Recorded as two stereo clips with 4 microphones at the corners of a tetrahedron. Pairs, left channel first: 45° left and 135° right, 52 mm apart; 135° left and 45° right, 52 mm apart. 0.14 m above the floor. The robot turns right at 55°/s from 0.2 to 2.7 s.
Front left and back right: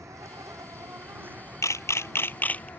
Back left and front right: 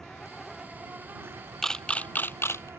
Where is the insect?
145° right; by 2.8 s 5° right.